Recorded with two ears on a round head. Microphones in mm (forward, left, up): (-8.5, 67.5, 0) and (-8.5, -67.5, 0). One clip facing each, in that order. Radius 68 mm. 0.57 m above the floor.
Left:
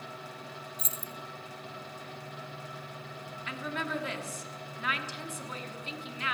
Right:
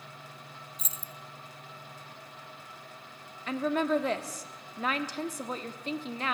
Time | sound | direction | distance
0.8 | keys jangling | 70° right (ahead or behind) | 0.7 m
3.5 | a woman speaking | 30° right (ahead or behind) | 1.2 m